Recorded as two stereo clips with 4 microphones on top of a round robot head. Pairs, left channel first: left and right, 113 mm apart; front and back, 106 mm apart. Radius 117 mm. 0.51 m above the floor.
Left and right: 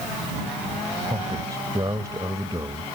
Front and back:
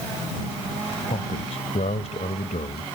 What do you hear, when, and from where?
1.1 s a man speaking: 25° right